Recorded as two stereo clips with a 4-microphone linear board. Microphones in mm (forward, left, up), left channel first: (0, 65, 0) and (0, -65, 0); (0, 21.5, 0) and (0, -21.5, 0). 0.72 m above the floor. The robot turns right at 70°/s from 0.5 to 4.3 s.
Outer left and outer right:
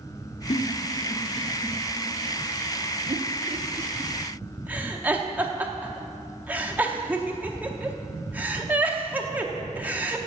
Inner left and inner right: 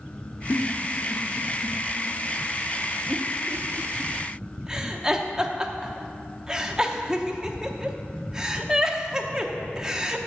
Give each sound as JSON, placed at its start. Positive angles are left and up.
{"t": 0.5, "sound": "a giggle", "side_deg": 70, "distance_m": 0.7}